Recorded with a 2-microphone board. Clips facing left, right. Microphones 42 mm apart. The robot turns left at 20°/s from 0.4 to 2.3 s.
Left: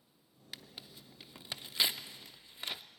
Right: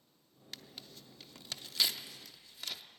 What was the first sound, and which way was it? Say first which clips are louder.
Tearing paper: even; 10° left (ahead or behind).